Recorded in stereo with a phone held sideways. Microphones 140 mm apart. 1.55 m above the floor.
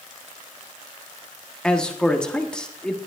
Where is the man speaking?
5° left (ahead or behind), 1.5 m.